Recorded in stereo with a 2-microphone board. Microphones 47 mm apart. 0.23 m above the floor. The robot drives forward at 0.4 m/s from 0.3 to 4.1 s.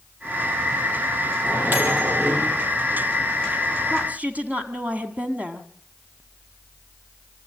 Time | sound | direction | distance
1.4 | a microwave | 45° right (ahead or behind) | 5.5 m
3.9 | a woman speaking | 35° right (ahead or behind) | 2.0 m